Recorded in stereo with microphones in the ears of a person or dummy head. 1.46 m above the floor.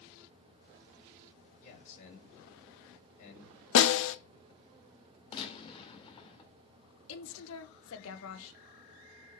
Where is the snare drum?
70° left (ahead or behind), 0.8 m.